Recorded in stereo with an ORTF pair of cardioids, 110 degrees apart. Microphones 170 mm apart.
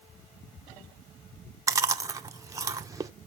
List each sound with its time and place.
1.7 s chewing: 20° right, 1.0 m